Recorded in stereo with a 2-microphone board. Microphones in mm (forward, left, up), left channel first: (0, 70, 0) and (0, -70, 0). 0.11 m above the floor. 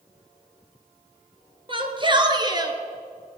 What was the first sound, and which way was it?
A shout, 35° right (ahead or behind).